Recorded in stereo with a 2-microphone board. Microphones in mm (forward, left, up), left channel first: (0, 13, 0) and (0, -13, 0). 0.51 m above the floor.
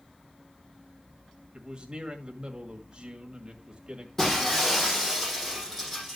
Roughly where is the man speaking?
Right.